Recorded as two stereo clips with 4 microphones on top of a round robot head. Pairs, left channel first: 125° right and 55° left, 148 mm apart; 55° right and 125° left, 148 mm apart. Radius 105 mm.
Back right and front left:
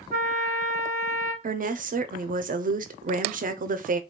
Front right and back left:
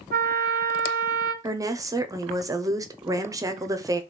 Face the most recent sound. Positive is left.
turn(degrees=60)